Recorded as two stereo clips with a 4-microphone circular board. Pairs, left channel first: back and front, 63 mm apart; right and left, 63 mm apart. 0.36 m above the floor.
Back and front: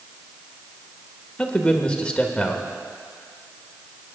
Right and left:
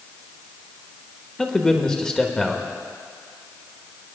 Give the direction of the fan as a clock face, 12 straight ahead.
No fan in this recording.